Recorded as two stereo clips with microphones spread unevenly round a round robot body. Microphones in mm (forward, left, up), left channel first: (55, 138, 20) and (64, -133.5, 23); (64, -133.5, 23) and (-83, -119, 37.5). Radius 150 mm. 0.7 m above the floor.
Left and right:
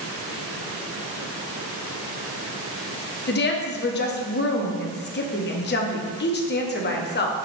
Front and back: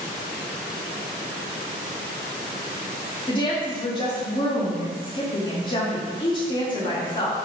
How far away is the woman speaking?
About 0.7 m.